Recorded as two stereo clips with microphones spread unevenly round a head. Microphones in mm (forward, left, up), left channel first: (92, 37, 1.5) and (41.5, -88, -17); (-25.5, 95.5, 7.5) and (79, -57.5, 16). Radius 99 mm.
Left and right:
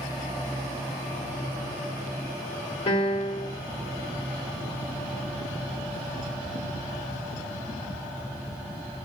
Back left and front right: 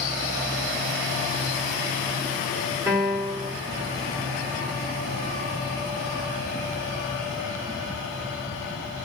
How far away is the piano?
About 1.5 m.